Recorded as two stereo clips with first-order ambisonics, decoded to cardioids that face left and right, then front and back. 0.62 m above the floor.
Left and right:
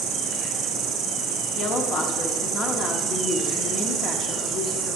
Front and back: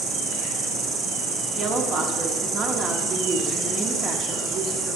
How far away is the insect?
About 2.5 m.